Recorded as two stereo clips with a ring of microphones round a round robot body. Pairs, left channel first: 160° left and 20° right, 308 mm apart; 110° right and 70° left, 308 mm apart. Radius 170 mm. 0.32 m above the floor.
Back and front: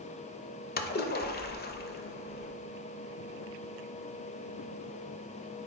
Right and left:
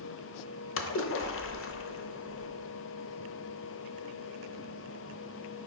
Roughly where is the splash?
Behind right.